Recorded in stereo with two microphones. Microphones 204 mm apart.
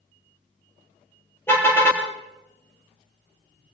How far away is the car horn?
About 5 m.